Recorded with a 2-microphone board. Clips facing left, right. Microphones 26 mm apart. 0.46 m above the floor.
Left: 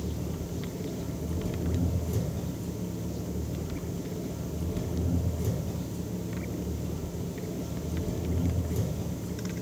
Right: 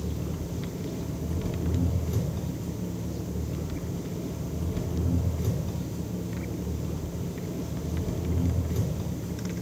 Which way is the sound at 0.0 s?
30° right (ahead or behind).